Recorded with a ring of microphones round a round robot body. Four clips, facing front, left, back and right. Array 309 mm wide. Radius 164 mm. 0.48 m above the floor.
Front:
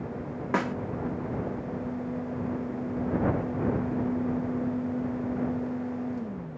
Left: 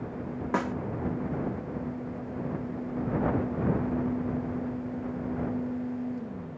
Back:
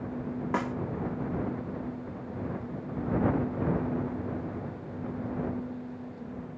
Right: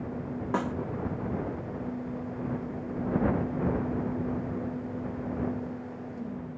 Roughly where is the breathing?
I don't hear breathing.